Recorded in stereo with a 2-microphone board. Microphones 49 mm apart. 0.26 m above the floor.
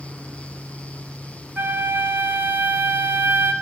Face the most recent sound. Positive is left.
turn(degrees=-45)  # may be behind; listen again after turning